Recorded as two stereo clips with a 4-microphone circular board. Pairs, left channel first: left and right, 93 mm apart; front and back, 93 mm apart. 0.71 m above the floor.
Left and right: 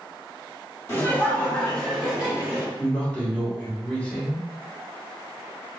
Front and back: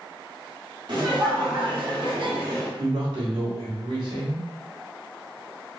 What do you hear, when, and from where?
0.9 s laughter: 150° left, 1.8 m; by 2.7 s 165° right, 1.8 m
2.8 s a man speaking: 165° left, 1.9 m